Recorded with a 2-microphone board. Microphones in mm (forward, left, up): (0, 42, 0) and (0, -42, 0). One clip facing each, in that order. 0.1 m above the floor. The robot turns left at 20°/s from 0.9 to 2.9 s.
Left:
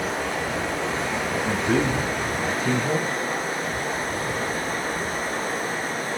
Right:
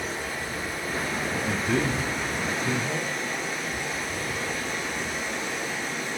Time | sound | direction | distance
0.0 | running water | 80° left | 6 m
1.4 | a man speaking | 15° left (ahead or behind) | 6 m